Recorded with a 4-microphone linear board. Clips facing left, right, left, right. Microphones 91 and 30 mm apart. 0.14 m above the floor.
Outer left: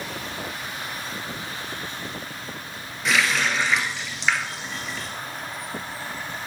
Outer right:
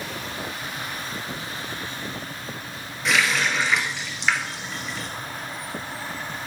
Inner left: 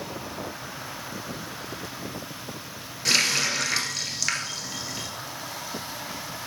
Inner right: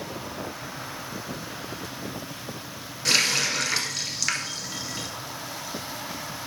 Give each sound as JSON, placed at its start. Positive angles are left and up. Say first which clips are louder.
{"t": 3.0, "sound": "a running tap", "louder": "even, even", "side_deg": 0, "distance_m": 1.7}